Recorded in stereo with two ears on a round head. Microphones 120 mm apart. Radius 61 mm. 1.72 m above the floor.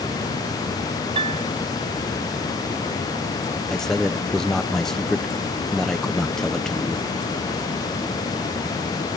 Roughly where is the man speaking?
Centre.